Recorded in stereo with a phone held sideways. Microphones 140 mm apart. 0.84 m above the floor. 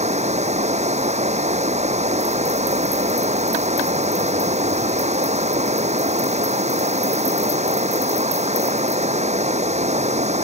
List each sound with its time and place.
0.0 s running water: 55° right (ahead or behind)